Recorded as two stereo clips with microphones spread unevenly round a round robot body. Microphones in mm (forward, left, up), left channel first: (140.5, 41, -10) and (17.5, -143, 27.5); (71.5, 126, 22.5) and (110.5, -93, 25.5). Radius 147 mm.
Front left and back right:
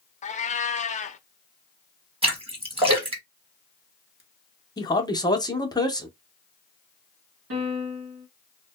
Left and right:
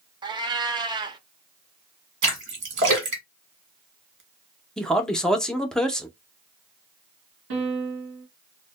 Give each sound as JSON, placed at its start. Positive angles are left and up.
{"t": 0.2, "sound": "a cat meowing", "azimuth_deg": -10, "distance_m": 0.6}
{"t": 2.2, "sound": "a splash", "azimuth_deg": -55, "distance_m": 1.3}
{"t": 4.8, "sound": "a man speaking", "azimuth_deg": 15, "distance_m": 0.6}
{"t": 7.5, "sound": "a piano", "azimuth_deg": -110, "distance_m": 1.1}